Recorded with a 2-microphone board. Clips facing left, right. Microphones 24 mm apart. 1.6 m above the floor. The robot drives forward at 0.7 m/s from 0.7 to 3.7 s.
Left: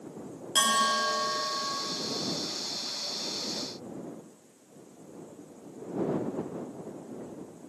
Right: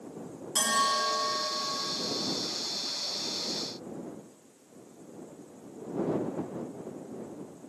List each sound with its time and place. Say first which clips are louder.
0.6 s a bell: left 2 dB; 80° left, 1.2 m; by 1.8 s 60° left (ahead or behind), 1.4 m